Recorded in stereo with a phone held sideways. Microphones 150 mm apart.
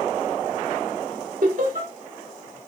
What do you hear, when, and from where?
1.4 s laughter: 65° right (ahead or behind), 2.5 m